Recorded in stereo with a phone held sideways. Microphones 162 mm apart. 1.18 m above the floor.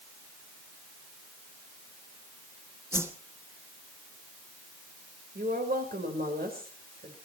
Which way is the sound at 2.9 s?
15° right (ahead or behind).